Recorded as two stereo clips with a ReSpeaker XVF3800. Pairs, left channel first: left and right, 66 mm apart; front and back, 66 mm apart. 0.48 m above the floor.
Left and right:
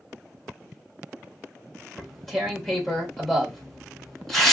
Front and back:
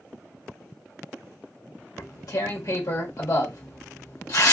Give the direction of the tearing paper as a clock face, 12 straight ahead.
12 o'clock.